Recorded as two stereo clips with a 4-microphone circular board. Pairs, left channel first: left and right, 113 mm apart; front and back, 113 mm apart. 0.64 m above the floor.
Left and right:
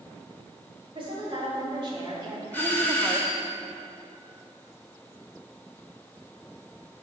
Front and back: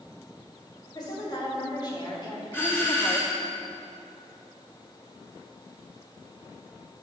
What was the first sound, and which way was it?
A woman speaking, 50° right.